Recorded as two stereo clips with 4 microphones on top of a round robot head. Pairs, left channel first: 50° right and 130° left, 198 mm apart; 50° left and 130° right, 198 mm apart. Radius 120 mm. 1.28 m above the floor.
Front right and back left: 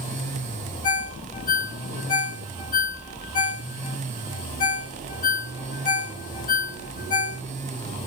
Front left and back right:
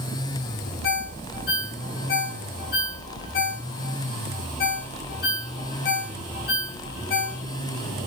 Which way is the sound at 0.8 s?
Straight ahead.